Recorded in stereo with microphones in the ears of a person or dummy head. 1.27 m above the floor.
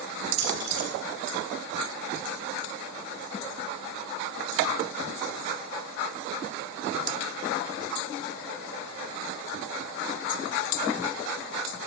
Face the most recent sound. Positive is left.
turn(degrees=-35)  # may be behind; listen again after turning